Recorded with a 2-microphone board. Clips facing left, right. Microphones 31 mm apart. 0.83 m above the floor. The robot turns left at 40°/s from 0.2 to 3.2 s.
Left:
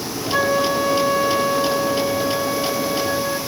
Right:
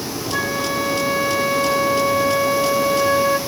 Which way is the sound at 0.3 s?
10° left.